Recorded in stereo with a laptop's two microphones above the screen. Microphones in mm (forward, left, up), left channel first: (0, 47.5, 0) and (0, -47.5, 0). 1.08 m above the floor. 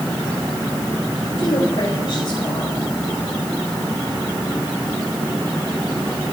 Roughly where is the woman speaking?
Left.